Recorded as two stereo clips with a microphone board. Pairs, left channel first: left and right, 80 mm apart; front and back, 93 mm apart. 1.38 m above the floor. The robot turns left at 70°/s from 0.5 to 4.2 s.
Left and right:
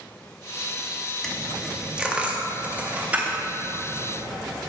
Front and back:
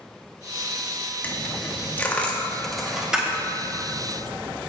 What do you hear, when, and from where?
1.2 s a dropped coin: 20° left, 0.8 m; by 4.4 s 175° left, 0.8 m